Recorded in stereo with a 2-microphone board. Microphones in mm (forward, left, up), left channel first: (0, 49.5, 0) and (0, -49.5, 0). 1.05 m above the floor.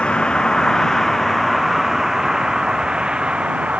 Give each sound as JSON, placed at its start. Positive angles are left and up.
{"t": 0.0, "sound": "a vehicle", "side_deg": 10}